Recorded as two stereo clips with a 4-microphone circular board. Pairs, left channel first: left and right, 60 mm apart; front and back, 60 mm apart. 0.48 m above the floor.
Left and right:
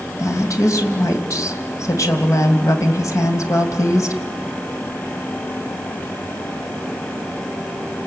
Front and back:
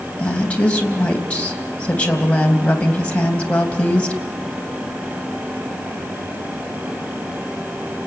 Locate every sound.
0.2 s a woman speaking: 70° left, 3 m